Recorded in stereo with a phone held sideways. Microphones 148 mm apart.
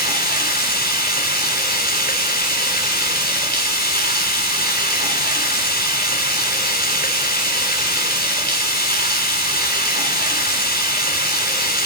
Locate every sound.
0.0 s running water: 75° left (ahead or behind), 4 m